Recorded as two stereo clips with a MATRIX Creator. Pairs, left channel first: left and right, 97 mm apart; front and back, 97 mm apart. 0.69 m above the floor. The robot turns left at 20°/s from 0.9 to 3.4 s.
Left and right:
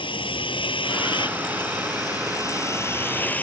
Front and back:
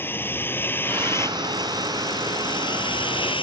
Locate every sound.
0.0 s a vehicle: 65° left; by 3.4 s 15° left